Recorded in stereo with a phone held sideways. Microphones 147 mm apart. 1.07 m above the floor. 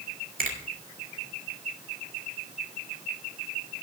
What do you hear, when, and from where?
0.4 s a finger snap: 70° right (ahead or behind), 2.5 m